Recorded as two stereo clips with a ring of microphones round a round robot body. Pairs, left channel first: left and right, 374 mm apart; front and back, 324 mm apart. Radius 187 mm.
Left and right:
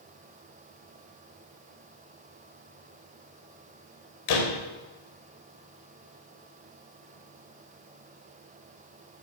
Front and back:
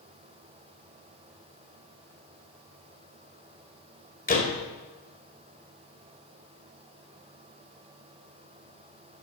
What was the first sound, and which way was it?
A door slam, 65° left.